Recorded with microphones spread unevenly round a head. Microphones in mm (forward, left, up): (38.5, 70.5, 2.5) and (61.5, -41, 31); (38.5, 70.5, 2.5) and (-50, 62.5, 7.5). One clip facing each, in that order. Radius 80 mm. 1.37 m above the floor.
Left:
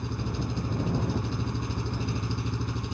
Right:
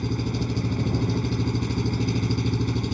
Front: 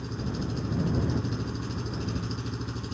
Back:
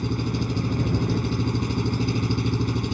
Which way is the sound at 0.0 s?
120° right.